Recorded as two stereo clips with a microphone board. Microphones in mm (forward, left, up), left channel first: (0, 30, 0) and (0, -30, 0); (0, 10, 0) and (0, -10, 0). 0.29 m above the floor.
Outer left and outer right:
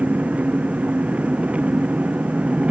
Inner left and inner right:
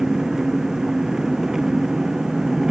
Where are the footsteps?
No footsteps in this recording.